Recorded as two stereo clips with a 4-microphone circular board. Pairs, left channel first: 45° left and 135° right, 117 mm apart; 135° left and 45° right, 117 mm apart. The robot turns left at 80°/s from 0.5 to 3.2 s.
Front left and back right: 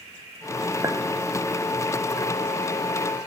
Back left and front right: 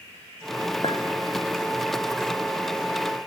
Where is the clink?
170° left, 0.5 m; by 1.0 s 155° left, 0.5 m.